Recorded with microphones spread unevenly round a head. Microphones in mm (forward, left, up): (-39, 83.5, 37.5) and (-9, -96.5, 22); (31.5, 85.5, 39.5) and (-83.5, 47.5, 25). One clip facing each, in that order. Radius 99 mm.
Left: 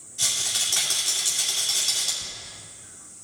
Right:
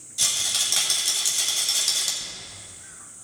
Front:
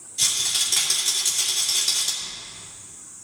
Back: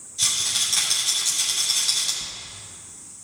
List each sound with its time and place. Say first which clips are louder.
0.2 s a rattle: even, even; 25° right, 2 m
2.2 s a zipper: even, back 1 dB; 140° right, 1.3 m